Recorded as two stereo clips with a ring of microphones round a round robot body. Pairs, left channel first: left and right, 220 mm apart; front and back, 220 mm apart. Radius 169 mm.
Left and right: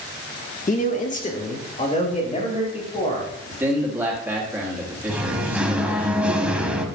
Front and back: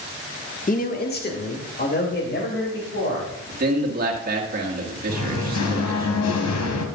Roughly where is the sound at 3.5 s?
Behind.